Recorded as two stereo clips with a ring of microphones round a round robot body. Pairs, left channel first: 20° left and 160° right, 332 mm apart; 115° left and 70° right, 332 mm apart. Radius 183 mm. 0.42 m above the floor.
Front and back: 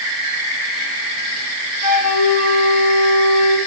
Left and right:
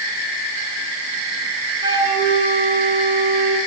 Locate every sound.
1.8 s a flute: 10° left, 7.5 m